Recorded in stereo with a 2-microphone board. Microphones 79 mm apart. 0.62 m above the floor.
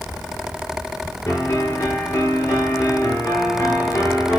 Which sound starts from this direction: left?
A piano, at 1.3 s.